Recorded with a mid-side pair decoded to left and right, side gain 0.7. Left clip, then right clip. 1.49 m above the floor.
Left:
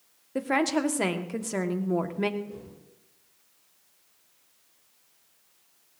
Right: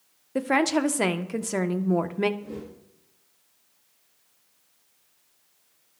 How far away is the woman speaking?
About 1.4 m.